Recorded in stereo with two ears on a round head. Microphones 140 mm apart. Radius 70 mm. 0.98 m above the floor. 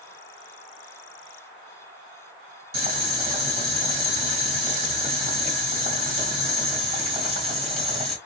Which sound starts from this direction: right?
Boiling, at 2.7 s.